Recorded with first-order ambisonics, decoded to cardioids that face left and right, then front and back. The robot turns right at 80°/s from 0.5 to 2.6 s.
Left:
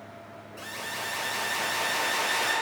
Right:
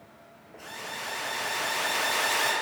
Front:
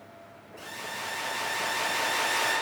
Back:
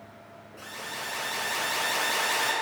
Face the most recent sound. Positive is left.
turn(degrees=-110)